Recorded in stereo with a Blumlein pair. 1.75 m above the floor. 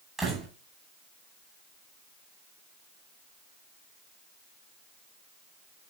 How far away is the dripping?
I don't hear dripping.